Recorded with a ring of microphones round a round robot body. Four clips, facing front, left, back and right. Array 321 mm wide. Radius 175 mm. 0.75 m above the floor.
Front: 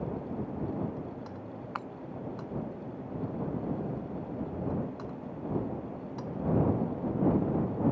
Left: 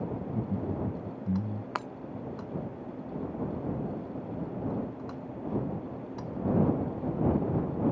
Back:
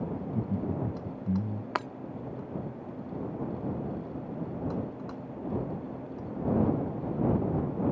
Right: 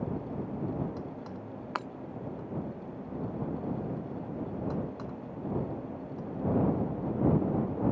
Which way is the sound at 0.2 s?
145° left.